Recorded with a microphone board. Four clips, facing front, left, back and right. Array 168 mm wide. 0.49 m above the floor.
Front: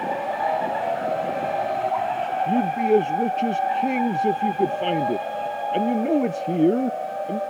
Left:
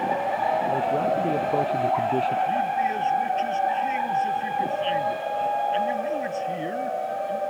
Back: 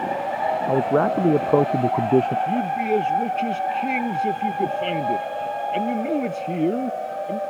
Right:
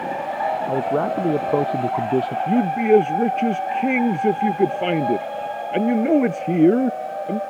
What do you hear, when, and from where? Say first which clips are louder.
0.7 s a man speaking: right 2 dB, back 5 dB; 155° right
2.5 s a man speaking: right 7 dB, front 2 dB; 75° right